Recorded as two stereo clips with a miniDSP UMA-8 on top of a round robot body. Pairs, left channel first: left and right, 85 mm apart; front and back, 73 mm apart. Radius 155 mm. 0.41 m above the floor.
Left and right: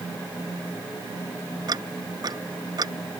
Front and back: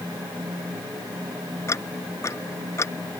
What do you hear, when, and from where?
1.7 s ticking: 50° right